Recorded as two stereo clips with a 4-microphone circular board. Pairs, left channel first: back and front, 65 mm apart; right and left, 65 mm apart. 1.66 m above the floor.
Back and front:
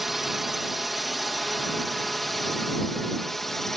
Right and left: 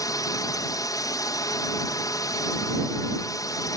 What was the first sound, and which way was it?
A drone, 85° right.